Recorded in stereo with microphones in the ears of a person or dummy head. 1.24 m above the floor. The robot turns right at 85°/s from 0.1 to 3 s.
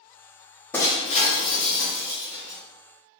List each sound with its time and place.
0.7 s breaking glass: 15° left, 1.0 m; by 2.6 s 175° left, 1.0 m